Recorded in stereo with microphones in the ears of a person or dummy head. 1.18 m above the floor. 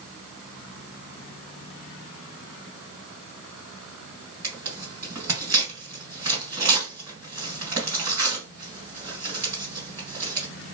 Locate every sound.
4.4 s tearing paper: 20° right (ahead or behind), 1.6 m